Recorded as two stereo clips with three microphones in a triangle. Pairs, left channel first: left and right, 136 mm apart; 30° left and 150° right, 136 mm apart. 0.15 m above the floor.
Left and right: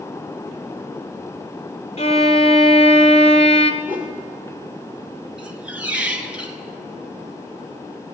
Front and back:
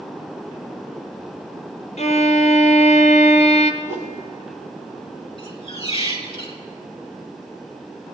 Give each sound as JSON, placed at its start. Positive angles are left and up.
{"t": 2.0, "sound": "a violin", "azimuth_deg": 55, "distance_m": 1.3}
{"t": 3.8, "sound": "a whoosh", "azimuth_deg": -15, "distance_m": 3.0}
{"t": 5.4, "sound": "a squeak", "azimuth_deg": -10, "distance_m": 1.5}